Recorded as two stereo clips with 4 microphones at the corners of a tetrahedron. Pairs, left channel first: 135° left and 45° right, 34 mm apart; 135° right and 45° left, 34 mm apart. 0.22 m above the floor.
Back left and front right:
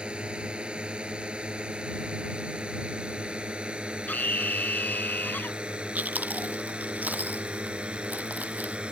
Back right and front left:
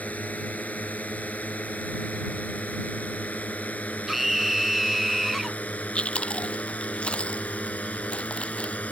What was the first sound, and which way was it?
A drone, 100° right.